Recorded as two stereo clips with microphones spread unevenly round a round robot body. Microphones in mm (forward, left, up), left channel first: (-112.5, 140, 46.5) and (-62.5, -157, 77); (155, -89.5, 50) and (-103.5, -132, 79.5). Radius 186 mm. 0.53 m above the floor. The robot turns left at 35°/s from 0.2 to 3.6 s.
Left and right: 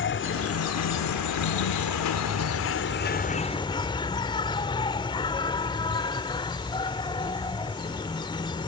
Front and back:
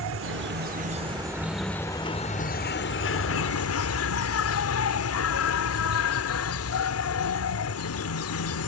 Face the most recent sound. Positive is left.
turn(degrees=25)